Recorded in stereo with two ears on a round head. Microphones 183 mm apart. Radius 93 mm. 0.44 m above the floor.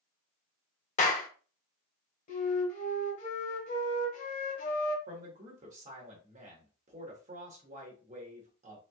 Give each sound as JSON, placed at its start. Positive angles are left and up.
{"t": 1.0, "sound": "a clap", "side_deg": 35, "distance_m": 0.8}
{"t": 2.3, "sound": "a flute", "side_deg": 35, "distance_m": 1.2}
{"t": 5.1, "sound": "a man speaking", "side_deg": -35, "distance_m": 1.3}